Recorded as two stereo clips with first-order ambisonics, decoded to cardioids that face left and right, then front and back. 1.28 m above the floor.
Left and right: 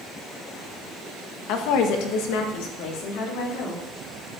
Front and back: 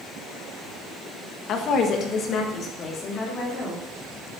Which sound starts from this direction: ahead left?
A woman speaking, at 1.5 s.